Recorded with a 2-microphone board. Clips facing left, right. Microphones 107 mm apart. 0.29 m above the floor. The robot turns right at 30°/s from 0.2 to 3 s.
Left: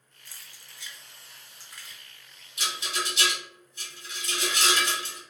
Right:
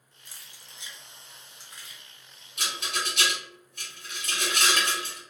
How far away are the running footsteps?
No running footsteps in this recording.